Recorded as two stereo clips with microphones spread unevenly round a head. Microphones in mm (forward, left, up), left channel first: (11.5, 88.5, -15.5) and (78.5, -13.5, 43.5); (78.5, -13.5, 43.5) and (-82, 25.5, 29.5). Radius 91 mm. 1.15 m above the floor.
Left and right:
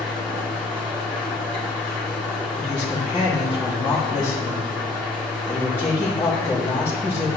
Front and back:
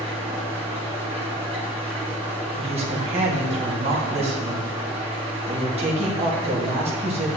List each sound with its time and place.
0.0 s an engine running: 135° right, 3 m
2.6 s a woman speaking: 140° right, 2 m